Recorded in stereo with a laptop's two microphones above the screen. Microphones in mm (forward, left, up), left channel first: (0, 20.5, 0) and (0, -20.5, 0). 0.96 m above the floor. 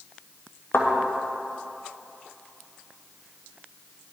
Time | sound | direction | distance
0.7 | a thud | 75° left (ahead or behind) | 2.5 m